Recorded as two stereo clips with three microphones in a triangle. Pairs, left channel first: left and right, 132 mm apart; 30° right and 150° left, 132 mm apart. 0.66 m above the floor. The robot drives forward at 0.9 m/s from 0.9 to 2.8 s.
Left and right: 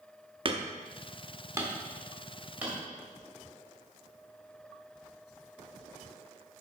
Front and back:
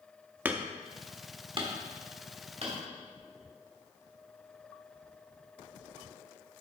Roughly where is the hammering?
Behind right.